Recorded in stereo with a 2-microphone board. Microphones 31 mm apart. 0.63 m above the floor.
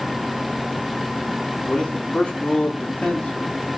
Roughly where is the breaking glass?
I don't hear breaking glass.